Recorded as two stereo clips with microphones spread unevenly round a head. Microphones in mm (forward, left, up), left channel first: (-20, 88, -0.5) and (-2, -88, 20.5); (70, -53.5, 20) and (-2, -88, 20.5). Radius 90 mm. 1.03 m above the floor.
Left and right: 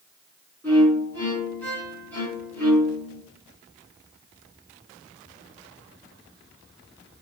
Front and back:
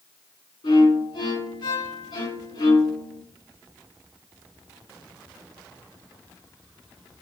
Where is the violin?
15° left, 3.5 m.